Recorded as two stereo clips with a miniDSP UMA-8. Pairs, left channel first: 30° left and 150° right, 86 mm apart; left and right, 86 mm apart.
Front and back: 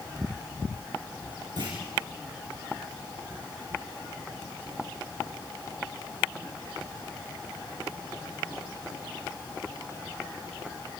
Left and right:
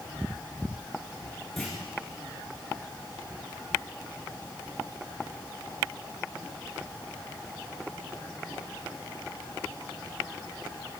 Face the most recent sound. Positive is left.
turn(degrees=175)